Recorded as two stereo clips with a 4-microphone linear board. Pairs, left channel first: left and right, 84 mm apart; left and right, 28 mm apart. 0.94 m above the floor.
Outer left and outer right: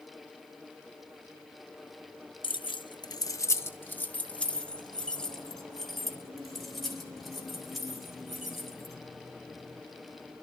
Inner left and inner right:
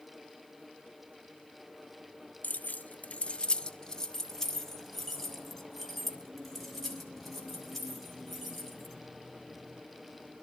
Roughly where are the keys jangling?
Left.